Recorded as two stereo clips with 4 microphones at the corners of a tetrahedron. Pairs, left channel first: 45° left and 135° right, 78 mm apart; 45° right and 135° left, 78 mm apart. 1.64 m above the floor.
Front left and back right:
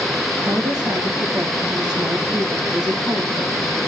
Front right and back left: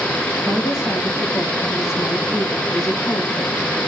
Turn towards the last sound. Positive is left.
turn(degrees=-95)